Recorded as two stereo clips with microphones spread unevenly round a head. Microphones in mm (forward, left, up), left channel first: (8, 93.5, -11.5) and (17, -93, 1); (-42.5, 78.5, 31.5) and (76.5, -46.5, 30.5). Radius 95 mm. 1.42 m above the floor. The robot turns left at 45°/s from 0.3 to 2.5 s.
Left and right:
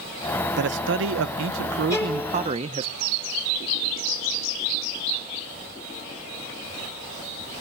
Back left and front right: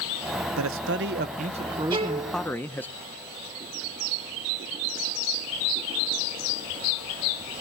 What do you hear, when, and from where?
0.6 s a man speaking: 60° right, 0.7 m; by 2.9 s 145° right, 0.7 m
1.9 s a violin: 15° left, 3 m; by 2.3 s straight ahead, 3 m